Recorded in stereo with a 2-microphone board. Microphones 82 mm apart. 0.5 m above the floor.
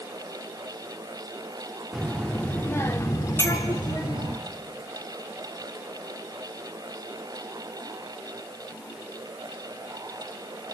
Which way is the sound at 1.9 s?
5° right (ahead or behind).